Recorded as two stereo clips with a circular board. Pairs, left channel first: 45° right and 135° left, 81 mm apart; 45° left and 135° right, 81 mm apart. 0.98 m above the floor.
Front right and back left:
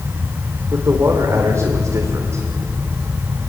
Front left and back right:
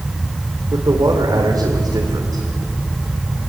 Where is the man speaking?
170° right, 3 m.